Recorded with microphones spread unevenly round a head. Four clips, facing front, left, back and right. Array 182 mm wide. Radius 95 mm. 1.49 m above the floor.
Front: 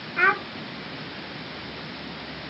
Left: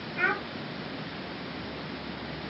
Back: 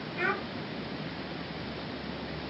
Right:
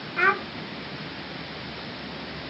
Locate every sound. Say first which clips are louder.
0.2 s a child speaking: right 6 dB, front 9 dB; 40° right, 0.5 m